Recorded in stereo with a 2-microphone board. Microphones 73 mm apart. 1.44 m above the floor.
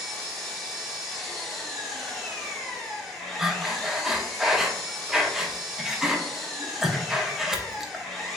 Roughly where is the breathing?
Centre.